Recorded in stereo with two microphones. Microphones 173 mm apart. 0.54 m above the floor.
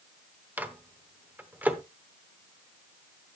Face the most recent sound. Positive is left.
turn(degrees=-10)  # may be behind; listen again after turning